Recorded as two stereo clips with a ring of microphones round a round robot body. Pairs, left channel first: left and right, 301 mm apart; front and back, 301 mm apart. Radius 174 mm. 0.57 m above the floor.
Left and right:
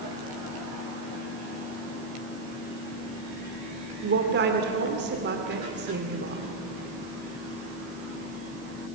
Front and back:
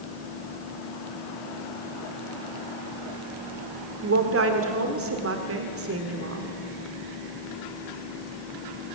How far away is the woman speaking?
About 2 m.